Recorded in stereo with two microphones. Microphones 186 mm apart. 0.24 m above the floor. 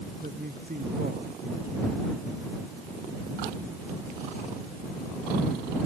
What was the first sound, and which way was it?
A man speaking, 55° right (ahead or behind).